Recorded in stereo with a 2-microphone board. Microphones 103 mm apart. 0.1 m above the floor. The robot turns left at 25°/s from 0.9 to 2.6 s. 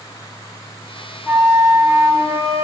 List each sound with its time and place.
1.2 s a flute: 35° right, 1.4 m; by 2.6 s 70° right, 1.4 m